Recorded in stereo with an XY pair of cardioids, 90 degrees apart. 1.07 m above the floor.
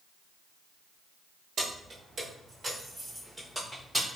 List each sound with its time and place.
1.6 s keys jangling: 65° right, 1.1 m; by 4.1 s 10° right, 3.5 m